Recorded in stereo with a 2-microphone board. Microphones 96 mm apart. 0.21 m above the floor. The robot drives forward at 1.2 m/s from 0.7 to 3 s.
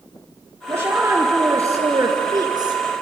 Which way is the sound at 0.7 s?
25° right (ahead or behind).